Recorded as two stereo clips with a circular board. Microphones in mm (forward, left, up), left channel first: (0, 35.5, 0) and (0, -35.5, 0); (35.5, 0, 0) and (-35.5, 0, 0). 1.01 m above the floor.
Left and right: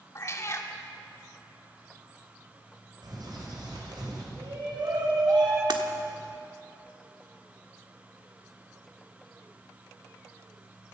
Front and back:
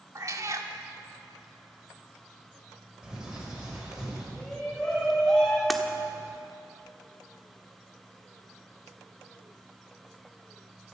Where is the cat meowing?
135° left, 1.5 m.